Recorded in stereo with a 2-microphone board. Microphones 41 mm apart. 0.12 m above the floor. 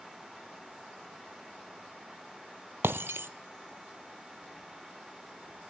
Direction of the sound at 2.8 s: 70° right (ahead or behind).